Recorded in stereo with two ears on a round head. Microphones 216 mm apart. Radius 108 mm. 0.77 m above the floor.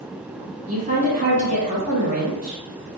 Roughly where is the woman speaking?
Right.